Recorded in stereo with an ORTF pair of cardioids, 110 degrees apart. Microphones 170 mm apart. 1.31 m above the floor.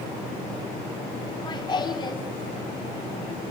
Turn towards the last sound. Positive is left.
turn(degrees=25)